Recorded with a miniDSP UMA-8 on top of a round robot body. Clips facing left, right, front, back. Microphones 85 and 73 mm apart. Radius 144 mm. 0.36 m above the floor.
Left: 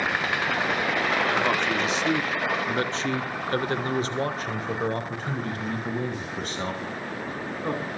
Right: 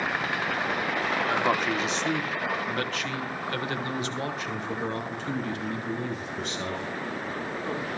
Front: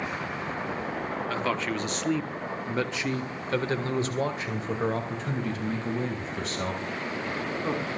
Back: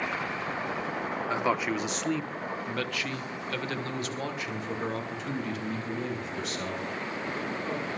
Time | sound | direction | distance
1.3 | a man speaking | 145° right | 1.3 m